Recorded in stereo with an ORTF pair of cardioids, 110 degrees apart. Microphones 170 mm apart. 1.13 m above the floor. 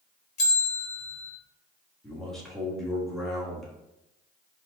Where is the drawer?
I don't hear a drawer.